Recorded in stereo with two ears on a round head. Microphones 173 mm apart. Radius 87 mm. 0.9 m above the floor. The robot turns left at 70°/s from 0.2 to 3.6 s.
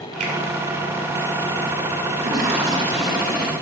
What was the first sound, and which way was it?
A finger snap, 40° right (ahead or behind).